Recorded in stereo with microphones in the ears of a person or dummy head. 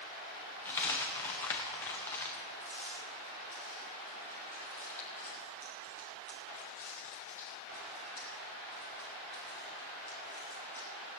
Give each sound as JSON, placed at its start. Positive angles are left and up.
{"t": 0.7, "sound": "a dropped coin", "side_deg": 10, "distance_m": 0.6}